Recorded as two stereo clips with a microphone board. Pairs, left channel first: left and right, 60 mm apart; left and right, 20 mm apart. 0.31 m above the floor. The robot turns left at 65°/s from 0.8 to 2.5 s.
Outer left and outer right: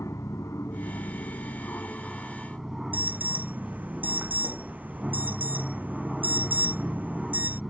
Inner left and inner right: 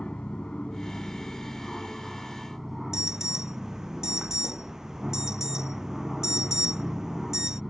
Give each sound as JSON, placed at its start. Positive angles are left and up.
{"t": 0.0, "sound": "an aircraft", "azimuth_deg": 105}
{"t": 2.9, "sound": "an alarm", "side_deg": -30}